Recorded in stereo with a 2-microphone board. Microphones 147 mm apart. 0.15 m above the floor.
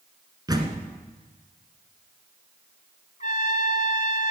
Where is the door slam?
25° right (ahead or behind), 1.6 m.